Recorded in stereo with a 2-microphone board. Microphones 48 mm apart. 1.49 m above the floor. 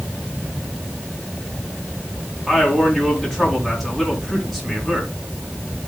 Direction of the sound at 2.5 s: 5° left (ahead or behind).